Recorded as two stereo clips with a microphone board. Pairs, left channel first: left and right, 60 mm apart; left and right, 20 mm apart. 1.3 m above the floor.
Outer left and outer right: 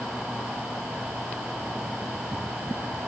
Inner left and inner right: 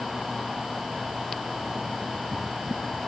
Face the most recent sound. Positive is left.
No sound to turn to.